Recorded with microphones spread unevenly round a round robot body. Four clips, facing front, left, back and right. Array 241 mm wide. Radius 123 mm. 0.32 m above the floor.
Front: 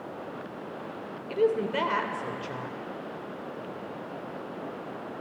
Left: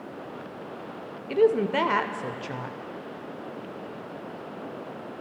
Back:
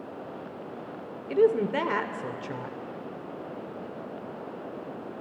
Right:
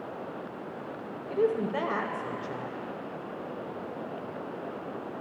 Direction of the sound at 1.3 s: 130° left.